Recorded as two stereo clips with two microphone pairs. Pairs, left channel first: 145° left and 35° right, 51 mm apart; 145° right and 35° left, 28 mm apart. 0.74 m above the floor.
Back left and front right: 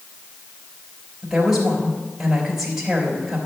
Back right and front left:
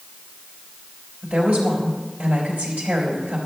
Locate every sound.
1.2 s a woman speaking: 45° left, 3.5 m